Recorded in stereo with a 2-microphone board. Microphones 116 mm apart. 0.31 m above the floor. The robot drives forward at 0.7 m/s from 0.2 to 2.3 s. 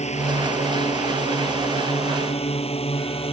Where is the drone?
75° left (ahead or behind); by 3.3 s 60° left (ahead or behind).